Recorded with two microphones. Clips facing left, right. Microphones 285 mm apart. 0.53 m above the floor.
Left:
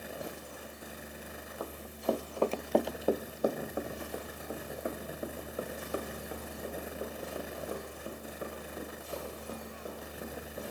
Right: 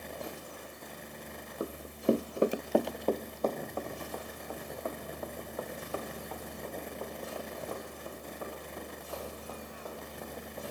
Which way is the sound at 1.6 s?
30° right (ahead or behind).